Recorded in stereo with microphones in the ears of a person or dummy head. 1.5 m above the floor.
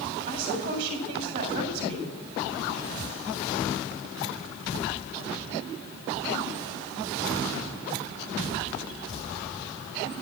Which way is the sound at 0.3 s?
35° right (ahead or behind).